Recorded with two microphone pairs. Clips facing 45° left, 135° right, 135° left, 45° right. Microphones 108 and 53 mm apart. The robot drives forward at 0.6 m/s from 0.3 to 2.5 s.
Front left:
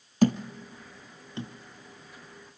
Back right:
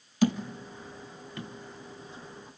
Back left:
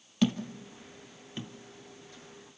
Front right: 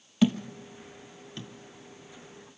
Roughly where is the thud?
Ahead left.